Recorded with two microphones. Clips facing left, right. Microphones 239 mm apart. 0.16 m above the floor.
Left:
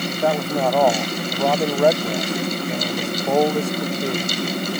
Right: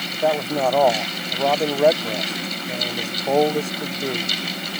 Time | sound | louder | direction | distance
0.1 | a man speaking | right 1 dB | centre (ahead or behind) | ?